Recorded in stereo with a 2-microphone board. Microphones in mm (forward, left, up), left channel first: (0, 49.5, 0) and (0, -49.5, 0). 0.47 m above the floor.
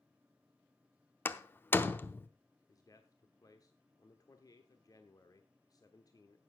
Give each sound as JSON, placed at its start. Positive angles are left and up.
{"t": 1.2, "sound": "a door slam", "side_deg": 20, "distance_m": 0.7}
{"t": 2.7, "sound": "a man speaking", "side_deg": 35, "distance_m": 0.9}